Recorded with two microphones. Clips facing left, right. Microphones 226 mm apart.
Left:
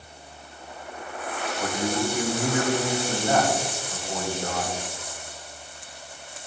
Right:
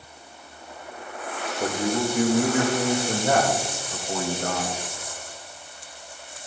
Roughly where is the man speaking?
Right.